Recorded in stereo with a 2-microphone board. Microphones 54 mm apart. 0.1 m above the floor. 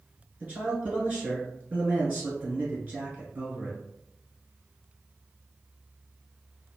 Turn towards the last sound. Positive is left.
turn(degrees=-30)  # may be behind; listen again after turning